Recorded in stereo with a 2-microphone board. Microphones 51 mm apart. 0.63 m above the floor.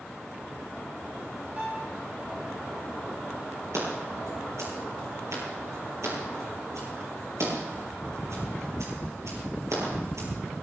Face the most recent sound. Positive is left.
turn(degrees=-85)